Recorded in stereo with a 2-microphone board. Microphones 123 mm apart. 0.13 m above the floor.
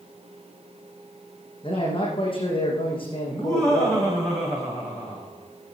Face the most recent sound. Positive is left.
turn(degrees=5)  # may be behind; listen again after turning